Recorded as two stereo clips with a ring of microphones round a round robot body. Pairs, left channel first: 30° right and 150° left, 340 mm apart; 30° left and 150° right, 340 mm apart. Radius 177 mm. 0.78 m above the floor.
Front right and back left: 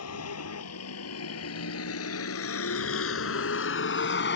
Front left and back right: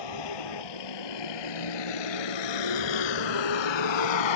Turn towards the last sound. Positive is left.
turn(degrees=30)